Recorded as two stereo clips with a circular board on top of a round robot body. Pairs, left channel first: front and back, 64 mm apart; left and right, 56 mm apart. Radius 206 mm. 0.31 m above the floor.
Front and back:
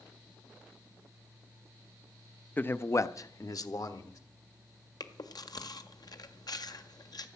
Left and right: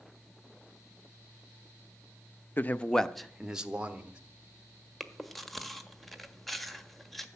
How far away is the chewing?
About 1.6 m.